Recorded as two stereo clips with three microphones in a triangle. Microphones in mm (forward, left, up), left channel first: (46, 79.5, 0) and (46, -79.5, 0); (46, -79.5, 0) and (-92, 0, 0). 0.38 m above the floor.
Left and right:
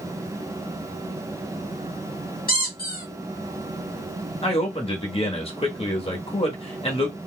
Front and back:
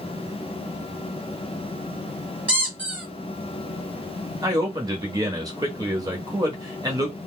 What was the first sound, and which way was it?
A squeak, 70° left.